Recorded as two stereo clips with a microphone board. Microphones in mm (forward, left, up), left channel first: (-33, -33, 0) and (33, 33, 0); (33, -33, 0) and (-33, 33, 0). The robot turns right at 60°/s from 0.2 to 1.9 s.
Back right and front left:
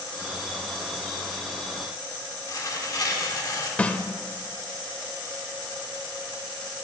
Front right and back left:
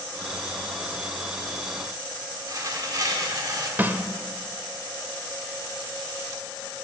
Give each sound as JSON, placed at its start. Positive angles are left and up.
{"t": 2.5, "sound": "tearing paper", "azimuth_deg": 180, "distance_m": 1.3}
{"t": 3.8, "sound": "a snare drum", "azimuth_deg": 170, "distance_m": 0.5}